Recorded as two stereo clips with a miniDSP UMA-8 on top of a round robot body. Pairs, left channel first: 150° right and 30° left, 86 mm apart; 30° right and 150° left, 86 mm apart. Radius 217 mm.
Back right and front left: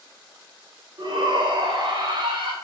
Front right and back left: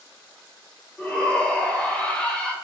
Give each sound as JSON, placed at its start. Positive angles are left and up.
{"t": 1.0, "sound": "a shout", "azimuth_deg": 45, "distance_m": 1.9}